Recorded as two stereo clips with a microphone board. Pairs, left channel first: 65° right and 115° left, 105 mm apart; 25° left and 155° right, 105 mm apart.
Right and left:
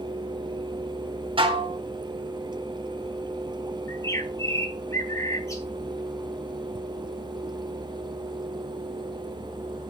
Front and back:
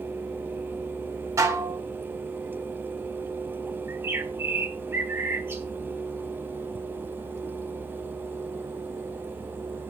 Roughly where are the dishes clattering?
Behind left.